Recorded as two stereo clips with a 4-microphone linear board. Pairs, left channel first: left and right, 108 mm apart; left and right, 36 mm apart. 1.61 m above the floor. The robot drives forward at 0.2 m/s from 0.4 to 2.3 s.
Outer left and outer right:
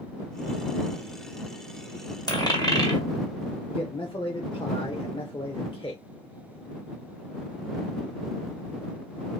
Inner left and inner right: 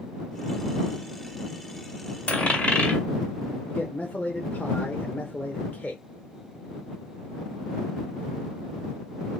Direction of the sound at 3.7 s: 50° left (ahead or behind).